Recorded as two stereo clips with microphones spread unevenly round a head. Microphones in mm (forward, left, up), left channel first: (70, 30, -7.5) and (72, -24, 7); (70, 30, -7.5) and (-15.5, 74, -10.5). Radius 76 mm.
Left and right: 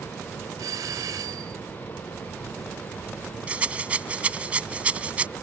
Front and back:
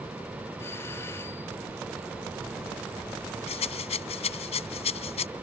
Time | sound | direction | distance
0.6 | a doorbell | 100° right | ?
3.5 | a rattle | 25° right | ?